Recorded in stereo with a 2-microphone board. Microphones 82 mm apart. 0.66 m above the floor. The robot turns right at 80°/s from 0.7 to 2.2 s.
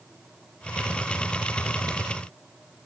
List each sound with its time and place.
Only background noise.